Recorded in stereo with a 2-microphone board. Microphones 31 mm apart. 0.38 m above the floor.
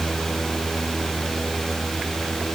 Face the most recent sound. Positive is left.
No sound to turn to.